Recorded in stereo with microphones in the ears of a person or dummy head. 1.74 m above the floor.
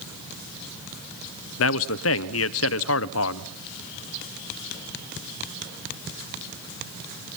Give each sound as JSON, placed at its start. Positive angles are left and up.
{"t": 1.6, "sound": "a man speaking", "side_deg": 65, "distance_m": 0.9}